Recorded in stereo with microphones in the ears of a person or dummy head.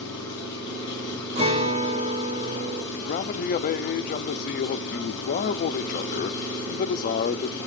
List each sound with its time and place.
0.0 s an engine running: 35° left (ahead or behind), 6.5 m
1.4 s a guitar: 40° right (ahead or behind), 1.4 m
2.9 s a man speaking: 35° left (ahead or behind), 0.6 m